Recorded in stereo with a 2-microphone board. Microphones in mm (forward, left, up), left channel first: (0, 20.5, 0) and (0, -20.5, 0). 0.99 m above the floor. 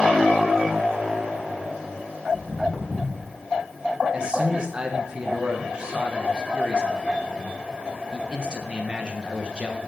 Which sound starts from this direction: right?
A man speaking, at 4.1 s.